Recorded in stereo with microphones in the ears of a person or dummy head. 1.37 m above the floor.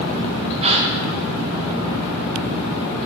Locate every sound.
0.6 s a gasp: 25° right (ahead or behind), 1.6 m